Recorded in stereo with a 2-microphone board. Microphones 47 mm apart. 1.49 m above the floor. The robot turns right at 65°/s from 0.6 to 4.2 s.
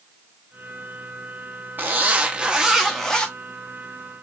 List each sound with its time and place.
1.8 s a zipper: 70° right, 1.1 m; by 3.3 s 30° left, 1.1 m